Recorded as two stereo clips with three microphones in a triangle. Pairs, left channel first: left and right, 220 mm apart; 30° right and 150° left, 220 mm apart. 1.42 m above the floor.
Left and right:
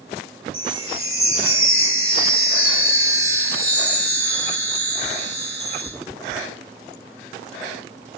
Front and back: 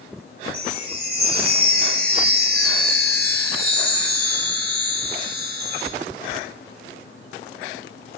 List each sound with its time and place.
0.5 s a chime: 105° left, 1.4 m